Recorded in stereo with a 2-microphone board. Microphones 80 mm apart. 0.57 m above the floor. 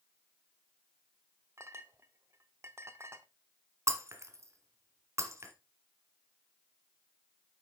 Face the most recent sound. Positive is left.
turn(degrees=-40)  # may be behind; listen again after turning